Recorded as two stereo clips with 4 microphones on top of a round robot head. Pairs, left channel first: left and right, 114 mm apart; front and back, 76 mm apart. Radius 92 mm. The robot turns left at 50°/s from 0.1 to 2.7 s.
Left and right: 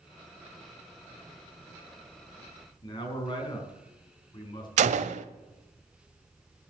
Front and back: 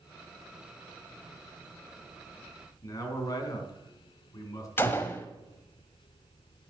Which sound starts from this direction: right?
A gunshot, at 4.8 s.